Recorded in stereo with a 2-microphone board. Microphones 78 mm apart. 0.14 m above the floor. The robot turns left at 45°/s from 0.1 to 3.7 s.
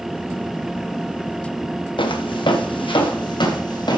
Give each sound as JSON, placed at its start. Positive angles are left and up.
{"t": 2.0, "sound": "footsteps", "side_deg": 80, "distance_m": 1.2}